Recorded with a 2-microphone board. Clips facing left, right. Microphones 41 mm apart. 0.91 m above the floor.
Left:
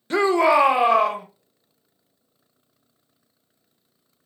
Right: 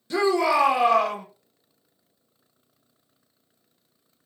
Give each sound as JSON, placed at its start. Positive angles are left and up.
{"t": 0.1, "sound": "a shout", "side_deg": 45, "distance_m": 0.5}